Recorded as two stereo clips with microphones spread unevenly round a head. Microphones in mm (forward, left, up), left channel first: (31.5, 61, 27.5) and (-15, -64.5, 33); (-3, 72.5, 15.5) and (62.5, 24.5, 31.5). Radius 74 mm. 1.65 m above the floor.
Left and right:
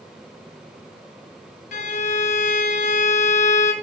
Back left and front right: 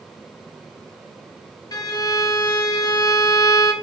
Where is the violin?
110° left, 2.0 m.